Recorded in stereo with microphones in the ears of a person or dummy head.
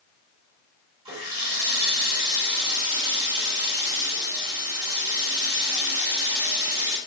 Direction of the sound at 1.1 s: 25° right (ahead or behind).